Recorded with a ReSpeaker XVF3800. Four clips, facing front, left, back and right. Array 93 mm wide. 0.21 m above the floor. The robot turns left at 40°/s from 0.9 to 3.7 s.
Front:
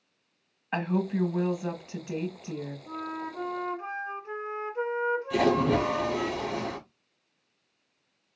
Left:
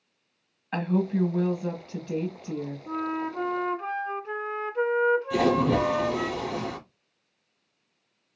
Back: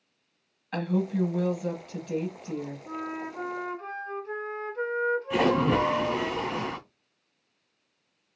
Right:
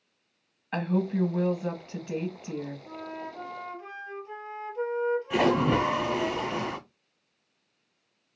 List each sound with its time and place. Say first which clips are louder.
0.7 s a woman speaking: left 2 dB, even; 10° left, 1.2 m; by 2.8 s 65° right, 1.2 m
2.9 s a flute: left 8 dB, front 1 dB; 110° left, 0.6 m; by 6.3 s 75° left, 0.6 m
5.3 s a splash: left 1 dB, even; 130° right, 1.5 m